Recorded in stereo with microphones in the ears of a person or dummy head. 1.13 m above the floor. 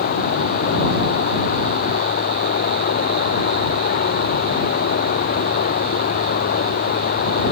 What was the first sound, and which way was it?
Running water, 50° left (ahead or behind).